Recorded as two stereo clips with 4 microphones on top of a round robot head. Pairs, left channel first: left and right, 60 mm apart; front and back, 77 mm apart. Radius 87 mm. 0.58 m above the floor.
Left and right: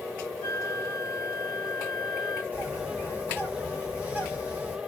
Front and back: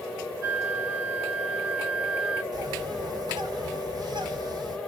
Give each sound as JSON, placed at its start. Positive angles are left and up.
{"t": 0.4, "sound": "a flute", "azimuth_deg": -155, "distance_m": 2.0}
{"t": 2.5, "sound": "a bird", "azimuth_deg": -155, "distance_m": 1.8}